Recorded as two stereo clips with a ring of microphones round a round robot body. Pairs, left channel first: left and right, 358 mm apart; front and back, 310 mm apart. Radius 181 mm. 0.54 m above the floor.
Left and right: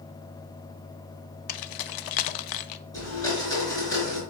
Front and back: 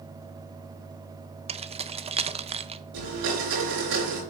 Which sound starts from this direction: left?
Keys jangling, at 1.5 s.